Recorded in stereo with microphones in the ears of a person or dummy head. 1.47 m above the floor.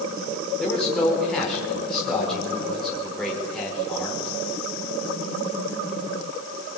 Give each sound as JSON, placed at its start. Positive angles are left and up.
{"t": 0.6, "sound": "a man speaking", "side_deg": 10, "distance_m": 5.5}